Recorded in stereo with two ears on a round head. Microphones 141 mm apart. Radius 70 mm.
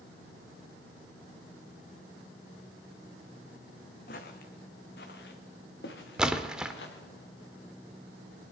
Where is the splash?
5° right (ahead or behind), 0.8 m.